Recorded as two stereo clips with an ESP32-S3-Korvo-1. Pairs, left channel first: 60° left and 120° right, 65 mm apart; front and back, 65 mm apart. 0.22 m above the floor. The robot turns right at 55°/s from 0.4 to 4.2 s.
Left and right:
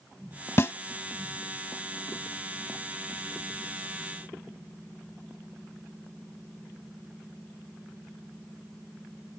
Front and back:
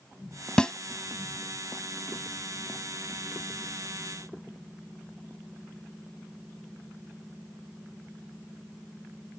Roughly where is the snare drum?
Ahead left.